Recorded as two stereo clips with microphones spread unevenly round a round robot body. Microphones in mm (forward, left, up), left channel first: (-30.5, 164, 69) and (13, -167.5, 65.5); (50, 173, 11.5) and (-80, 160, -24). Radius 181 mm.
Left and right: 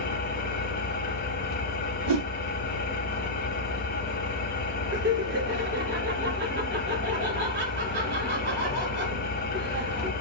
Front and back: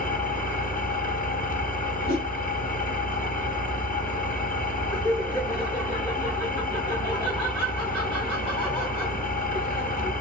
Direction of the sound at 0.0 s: 30° left.